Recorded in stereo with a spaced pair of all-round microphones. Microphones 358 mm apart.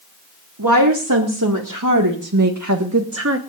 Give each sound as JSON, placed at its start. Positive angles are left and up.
{"t": 0.6, "sound": "a woman speaking", "side_deg": -65, "distance_m": 3.0}